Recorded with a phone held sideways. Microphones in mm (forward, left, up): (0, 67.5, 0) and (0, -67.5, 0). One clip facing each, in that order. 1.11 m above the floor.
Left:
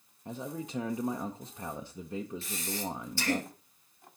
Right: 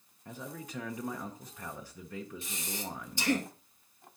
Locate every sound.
0.2 s a man speaking: 25° left (ahead or behind), 0.7 m
2.4 s breathing: 20° right (ahead or behind), 1.8 m